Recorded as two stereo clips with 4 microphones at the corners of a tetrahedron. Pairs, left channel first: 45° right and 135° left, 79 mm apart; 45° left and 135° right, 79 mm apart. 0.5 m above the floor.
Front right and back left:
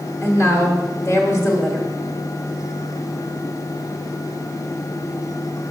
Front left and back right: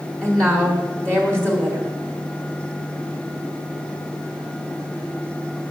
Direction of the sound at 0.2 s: 25° right.